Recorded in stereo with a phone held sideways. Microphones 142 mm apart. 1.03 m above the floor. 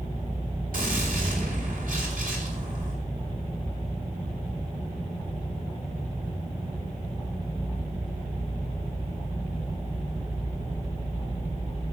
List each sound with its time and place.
0.7 s a gunshot: 80° right, 4 m